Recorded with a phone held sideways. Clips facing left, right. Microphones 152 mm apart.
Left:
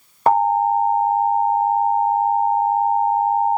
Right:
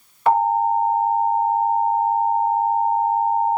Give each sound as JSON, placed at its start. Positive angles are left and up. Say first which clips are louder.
{"t": 0.3, "sound": "an alarm", "louder": "left 1 dB", "side_deg": 40, "distance_m": 4.5}